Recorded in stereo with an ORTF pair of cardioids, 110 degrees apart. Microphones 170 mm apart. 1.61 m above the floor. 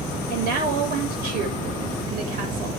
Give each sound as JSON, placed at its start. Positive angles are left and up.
{"t": 0.3, "sound": "a woman speaking", "azimuth_deg": -65, "distance_m": 6.5}